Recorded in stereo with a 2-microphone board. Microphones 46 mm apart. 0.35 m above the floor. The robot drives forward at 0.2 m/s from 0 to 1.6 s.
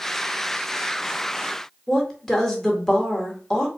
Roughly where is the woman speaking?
Centre.